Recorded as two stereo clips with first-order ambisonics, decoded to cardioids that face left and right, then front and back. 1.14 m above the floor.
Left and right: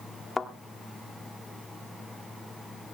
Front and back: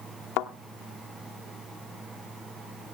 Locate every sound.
0.4 s a thud: 15° left, 1.3 m